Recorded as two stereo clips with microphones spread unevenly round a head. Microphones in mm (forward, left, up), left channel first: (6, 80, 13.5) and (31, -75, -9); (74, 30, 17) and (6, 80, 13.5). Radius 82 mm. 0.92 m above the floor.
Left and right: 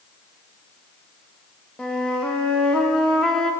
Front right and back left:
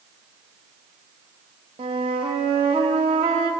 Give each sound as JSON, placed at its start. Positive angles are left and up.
{"t": 1.8, "sound": "a flute", "azimuth_deg": 180, "distance_m": 0.6}